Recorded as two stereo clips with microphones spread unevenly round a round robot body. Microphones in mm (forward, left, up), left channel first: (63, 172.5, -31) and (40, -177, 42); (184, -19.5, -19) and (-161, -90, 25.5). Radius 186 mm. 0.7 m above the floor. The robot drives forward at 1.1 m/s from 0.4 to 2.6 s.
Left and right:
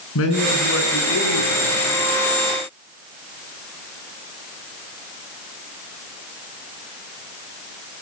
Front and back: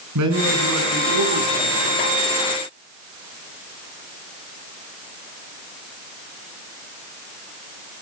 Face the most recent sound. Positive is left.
turn(degrees=150)